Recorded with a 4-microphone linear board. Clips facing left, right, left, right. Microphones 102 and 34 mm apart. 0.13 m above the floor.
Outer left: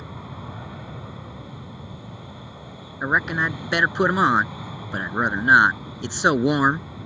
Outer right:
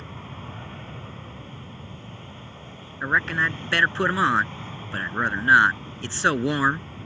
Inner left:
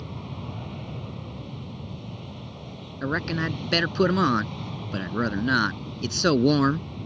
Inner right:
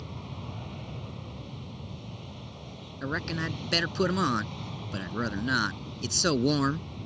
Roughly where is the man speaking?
Centre.